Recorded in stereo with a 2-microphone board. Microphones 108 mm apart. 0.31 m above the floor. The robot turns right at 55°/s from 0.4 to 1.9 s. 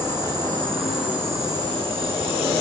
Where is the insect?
155° left, 5.5 m; by 2.6 s 125° right, 5.5 m.